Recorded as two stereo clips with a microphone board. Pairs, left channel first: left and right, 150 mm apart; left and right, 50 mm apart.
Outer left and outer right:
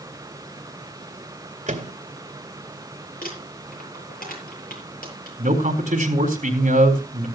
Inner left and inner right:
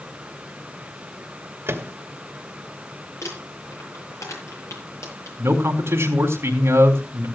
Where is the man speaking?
55° right (ahead or behind), 4 m.